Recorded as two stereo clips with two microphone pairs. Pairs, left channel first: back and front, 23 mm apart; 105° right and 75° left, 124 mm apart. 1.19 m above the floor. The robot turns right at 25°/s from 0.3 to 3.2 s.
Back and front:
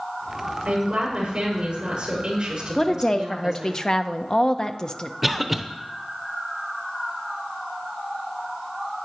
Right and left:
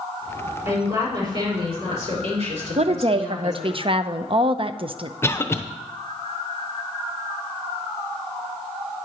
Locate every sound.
0.7 s a woman speaking: 10° left, 5.5 m; by 3.8 s 75° left, 5.5 m
2.8 s a woman speaking: 110° left, 0.6 m; by 5.1 s 120° left, 0.6 m
5.2 s a cough: 75° right, 0.7 m